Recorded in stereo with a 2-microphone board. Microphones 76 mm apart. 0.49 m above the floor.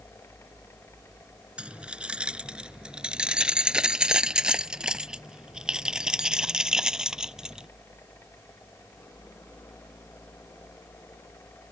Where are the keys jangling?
15° right (ahead or behind); by 7.7 s 10° right (ahead or behind).